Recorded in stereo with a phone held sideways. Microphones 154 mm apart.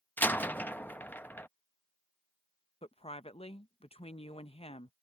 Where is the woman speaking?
45° left (ahead or behind).